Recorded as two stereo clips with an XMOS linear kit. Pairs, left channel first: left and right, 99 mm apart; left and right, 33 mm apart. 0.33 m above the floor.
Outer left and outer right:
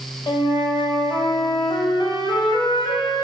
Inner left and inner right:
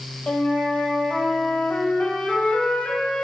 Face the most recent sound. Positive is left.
turn(degrees=60)  # may be behind; listen again after turning